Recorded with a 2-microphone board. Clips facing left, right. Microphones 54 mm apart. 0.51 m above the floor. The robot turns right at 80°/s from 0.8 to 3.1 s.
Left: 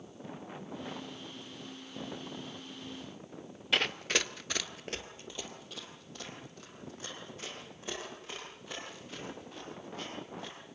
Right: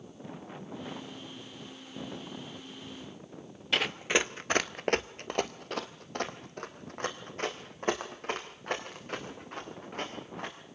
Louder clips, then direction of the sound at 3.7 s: Right 3 dB; centre (ahead or behind).